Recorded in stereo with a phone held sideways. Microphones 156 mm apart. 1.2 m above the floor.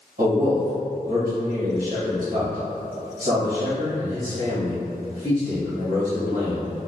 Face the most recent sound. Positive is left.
turn(degrees=-55)  # may be behind; listen again after turning